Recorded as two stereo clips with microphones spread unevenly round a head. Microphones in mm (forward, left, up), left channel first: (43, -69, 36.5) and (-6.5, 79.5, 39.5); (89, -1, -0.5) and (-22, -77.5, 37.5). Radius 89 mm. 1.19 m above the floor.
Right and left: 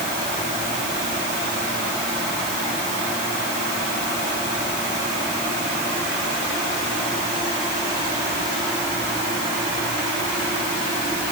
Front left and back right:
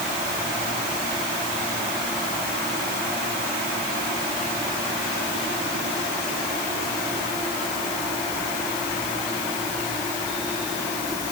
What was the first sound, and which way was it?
Only background noise.